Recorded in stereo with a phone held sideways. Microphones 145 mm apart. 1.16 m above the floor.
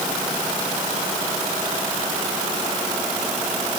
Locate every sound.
Only background noise.